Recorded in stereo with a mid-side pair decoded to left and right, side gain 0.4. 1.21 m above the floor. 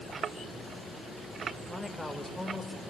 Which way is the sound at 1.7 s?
10° left.